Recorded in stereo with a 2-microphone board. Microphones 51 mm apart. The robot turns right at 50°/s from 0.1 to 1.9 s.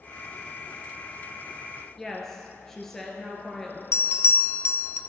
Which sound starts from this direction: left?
A bell, at 3.9 s.